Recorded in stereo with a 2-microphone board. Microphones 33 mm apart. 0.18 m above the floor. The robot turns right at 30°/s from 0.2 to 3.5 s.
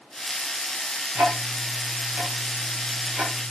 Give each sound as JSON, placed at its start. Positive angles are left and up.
{"t": 1.1, "sound": "ticking", "side_deg": -70, "distance_m": 3.5}